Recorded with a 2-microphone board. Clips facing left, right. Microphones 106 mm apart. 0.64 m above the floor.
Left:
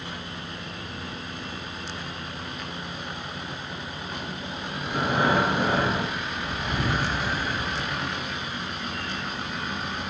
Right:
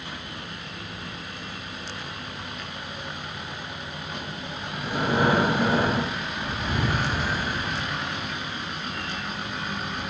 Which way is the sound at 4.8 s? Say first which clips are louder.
Right 1 dB; 30° right (ahead or behind).